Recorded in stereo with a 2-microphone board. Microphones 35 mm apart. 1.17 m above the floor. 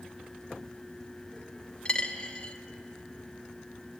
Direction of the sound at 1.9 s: 25° left (ahead or behind).